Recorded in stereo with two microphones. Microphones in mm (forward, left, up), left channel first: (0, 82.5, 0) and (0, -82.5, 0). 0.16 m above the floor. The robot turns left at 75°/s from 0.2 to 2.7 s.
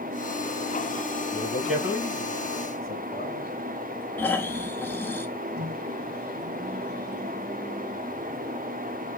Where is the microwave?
75° right (ahead or behind), 4.5 m.